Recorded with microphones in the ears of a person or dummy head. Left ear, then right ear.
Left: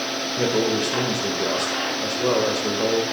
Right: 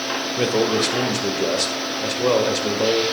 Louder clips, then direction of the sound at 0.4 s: Right 2 dB; 25° right (ahead or behind).